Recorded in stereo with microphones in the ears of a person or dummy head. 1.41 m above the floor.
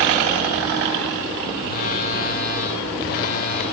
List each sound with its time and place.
1.6 s a phone buzzing: 45° left (ahead or behind), 3.5 m